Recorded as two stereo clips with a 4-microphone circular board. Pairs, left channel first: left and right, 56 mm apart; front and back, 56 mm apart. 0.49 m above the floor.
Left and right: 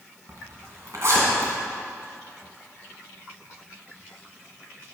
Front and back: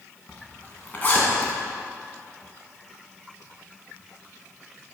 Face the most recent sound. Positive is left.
turn(degrees=-60)